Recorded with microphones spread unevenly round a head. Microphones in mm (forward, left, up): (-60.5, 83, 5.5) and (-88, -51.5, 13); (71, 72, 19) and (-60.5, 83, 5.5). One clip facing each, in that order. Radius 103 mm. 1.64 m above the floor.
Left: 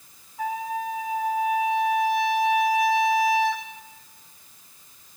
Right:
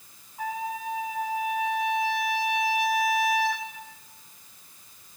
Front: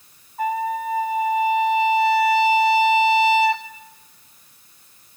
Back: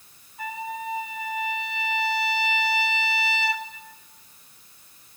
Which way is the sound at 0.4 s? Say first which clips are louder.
Left 3 dB, front 10 dB; 40° left.